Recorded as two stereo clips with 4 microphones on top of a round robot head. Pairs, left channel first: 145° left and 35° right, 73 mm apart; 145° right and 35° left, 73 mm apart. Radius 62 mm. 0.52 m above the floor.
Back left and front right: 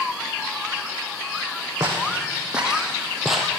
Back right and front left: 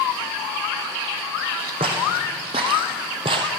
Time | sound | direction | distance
1.8 | footsteps | 35° left | 1.9 m